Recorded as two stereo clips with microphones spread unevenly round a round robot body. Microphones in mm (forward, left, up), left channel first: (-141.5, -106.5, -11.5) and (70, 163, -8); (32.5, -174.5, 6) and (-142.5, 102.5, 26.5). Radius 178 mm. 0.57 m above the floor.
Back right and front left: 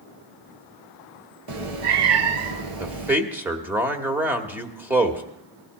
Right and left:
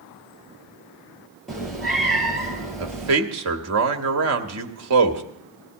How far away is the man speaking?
About 1.4 m.